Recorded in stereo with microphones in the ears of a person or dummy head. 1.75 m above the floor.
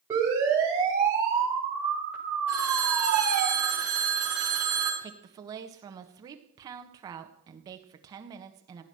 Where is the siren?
15° right (ahead or behind), 8.5 m; by 3.5 s centre (ahead or behind), 7.5 m.